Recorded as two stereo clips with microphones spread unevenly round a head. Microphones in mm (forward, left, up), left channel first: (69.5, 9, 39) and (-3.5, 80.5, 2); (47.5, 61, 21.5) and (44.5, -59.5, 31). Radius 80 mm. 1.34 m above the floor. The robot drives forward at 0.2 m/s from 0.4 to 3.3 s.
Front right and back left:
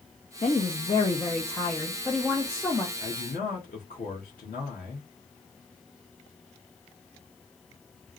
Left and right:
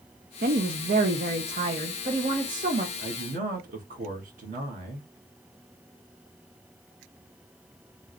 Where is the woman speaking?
100° right, 0.6 m; by 2.9 s 135° right, 0.8 m.